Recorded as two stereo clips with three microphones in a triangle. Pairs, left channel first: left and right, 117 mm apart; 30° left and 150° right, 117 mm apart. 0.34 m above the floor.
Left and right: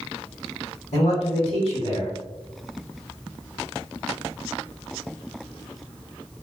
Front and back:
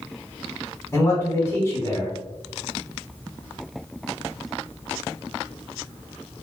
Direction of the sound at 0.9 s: 90° left.